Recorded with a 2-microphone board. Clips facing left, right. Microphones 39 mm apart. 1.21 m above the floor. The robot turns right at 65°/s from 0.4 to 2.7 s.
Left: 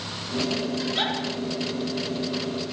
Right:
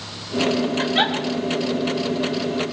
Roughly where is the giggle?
Right.